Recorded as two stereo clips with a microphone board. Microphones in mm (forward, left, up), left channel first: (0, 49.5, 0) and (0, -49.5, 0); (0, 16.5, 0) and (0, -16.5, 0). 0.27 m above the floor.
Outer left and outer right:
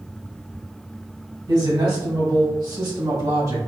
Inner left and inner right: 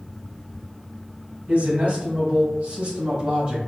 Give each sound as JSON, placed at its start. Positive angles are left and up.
{"t": 1.5, "sound": "a man speaking", "side_deg": -50, "distance_m": 1.9}